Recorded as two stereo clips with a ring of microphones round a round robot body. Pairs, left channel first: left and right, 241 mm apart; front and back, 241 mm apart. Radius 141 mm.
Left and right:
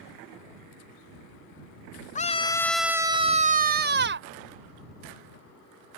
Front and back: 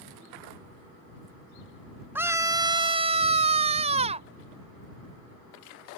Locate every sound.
2.1 s a scream: 105° left; by 4.3 s 115° right